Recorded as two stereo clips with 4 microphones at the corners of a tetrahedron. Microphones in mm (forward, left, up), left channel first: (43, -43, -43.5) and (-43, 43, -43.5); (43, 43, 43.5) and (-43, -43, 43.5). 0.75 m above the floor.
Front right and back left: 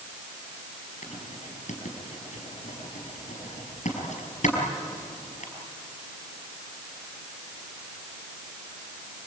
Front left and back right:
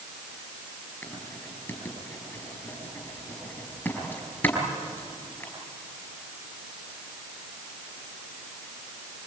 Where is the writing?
30° right, 5.5 m.